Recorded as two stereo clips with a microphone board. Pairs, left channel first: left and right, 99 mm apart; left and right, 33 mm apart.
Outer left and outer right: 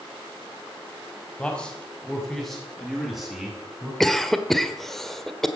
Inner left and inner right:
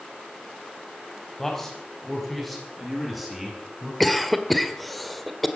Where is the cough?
5° left (ahead or behind), 1.7 m.